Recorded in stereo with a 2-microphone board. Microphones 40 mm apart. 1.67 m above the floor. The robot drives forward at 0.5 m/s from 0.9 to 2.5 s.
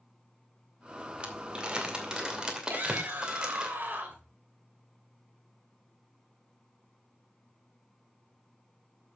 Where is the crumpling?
30° right (ahead or behind), 2 m; by 3.7 s 20° right (ahead or behind), 2.5 m.